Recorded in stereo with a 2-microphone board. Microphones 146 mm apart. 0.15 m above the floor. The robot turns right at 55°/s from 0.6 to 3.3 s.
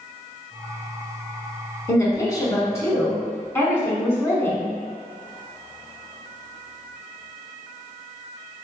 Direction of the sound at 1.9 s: 20° left (ahead or behind).